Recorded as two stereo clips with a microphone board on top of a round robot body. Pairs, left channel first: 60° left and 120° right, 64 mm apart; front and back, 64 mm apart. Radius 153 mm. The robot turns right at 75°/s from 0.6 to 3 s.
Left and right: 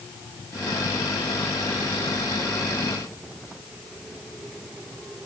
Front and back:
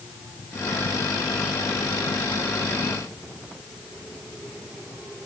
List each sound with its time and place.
Only background noise.